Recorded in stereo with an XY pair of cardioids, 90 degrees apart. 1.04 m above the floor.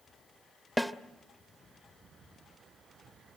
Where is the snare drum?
10° left, 1.1 m.